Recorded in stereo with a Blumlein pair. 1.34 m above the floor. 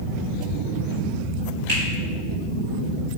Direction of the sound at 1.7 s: 45° right.